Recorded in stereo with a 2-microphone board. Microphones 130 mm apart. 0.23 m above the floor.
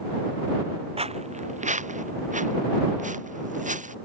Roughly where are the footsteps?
Right.